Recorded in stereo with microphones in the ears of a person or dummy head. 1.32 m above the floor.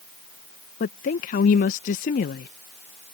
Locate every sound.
0.8 s a woman speaking: 45° left (ahead or behind)